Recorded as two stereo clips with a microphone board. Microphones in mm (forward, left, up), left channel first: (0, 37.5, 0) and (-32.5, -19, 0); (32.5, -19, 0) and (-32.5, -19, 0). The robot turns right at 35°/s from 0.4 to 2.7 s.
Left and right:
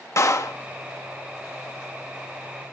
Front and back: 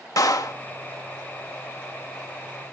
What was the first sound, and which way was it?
A clap, 25° left.